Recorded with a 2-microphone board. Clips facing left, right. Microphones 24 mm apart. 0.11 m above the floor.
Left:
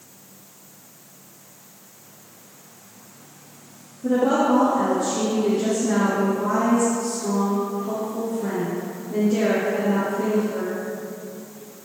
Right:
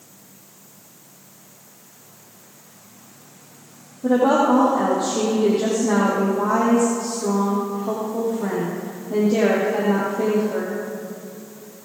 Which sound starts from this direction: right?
A woman speaking, at 4.0 s.